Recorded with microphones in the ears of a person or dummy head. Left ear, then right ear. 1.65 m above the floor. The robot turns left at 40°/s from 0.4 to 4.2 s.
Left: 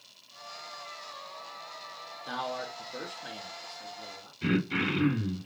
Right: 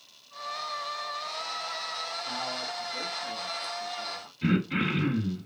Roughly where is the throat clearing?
Centre.